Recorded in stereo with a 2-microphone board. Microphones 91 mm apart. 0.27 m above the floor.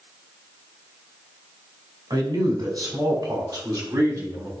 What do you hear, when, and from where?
2.1 s a man speaking: 55° right (ahead or behind), 2 m; by 4.5 s 40° right (ahead or behind), 2.5 m